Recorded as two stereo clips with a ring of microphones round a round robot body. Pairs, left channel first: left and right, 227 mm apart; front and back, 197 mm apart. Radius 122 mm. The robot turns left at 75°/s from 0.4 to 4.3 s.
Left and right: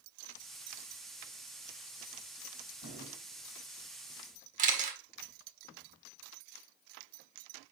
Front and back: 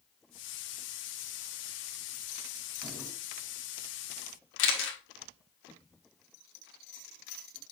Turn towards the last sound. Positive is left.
turn(degrees=-30)